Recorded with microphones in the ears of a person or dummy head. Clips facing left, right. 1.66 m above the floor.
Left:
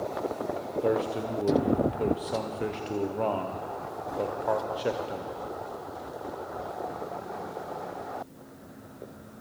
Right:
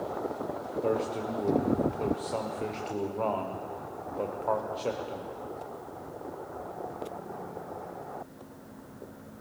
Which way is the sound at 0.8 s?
10° left (ahead or behind).